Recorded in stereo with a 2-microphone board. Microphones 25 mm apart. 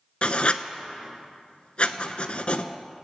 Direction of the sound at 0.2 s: 45° left (ahead or behind).